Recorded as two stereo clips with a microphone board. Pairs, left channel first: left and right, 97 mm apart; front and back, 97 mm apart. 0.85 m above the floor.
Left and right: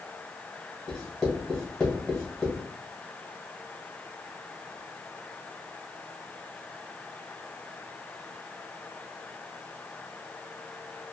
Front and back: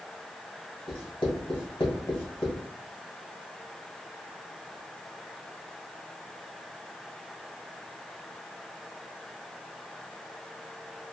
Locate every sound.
0.9 s writing: 5° left, 1.4 m